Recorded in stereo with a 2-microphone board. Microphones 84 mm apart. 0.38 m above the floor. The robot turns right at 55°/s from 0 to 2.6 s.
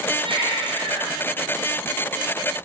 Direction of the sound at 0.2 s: 115° right.